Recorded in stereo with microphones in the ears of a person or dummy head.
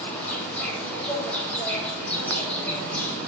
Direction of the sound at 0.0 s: 5° left (ahead or behind).